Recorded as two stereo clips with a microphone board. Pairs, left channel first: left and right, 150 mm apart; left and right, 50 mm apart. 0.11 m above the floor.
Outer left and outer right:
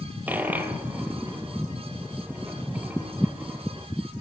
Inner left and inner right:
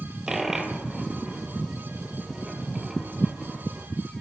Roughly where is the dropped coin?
Centre.